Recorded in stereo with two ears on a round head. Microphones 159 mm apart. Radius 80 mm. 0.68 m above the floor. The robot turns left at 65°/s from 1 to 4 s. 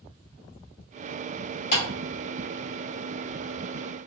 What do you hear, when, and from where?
1.7 s a clap: 55° left (ahead or behind), 2.5 m; by 1.8 s 50° left (ahead or behind), 2.5 m